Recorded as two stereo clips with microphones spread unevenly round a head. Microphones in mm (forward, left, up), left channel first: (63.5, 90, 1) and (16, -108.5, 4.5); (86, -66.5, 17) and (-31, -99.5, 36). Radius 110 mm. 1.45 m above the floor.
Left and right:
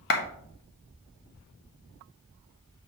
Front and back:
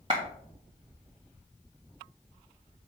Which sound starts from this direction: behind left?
A clap, at 0.1 s.